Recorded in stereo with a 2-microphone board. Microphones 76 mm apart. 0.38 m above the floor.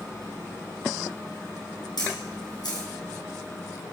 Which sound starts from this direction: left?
A camera shutter, at 2.0 s.